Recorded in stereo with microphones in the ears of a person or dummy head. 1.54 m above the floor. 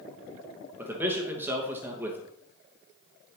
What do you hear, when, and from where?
0.8 s a man speaking: 10° right (ahead or behind), 2.5 m